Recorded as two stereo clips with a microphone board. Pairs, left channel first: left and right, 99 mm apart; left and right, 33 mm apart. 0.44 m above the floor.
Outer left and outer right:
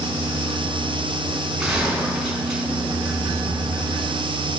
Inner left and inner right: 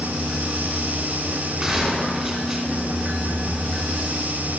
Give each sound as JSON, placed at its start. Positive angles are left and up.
{"t": 1.6, "sound": "a gunshot", "side_deg": -5, "distance_m": 3.0}